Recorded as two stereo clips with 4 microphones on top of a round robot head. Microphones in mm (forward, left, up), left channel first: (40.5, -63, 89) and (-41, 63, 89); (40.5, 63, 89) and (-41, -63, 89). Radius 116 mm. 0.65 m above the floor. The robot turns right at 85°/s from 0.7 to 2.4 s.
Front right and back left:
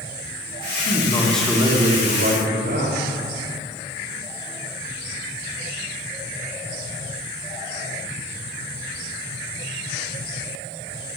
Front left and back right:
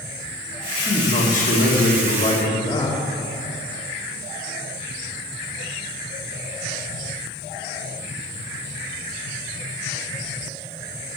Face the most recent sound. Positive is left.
turn(degrees=115)